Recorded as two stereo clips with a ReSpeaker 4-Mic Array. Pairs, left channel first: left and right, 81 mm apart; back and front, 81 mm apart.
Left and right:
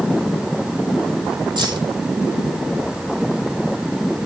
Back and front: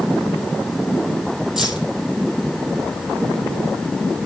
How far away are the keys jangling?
About 3 m.